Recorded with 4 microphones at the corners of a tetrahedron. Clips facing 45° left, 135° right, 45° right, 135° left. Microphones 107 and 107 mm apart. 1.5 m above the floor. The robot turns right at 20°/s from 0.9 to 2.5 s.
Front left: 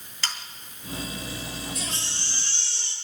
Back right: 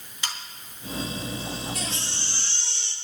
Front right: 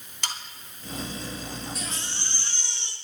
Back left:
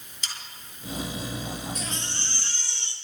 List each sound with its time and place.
0.2 s sawing: 60° right, 2.5 m
1.8 s a baby crying: 130° right, 3.5 m; by 2.9 s 115° right, 3.5 m